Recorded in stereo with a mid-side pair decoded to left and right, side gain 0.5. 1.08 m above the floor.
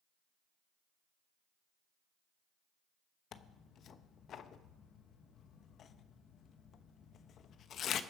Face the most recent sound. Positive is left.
turn(degrees=55)